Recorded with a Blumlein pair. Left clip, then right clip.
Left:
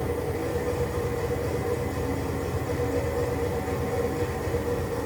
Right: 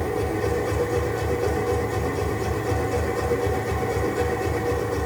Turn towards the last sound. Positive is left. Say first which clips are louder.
# right 4 dB
turn(degrees=-65)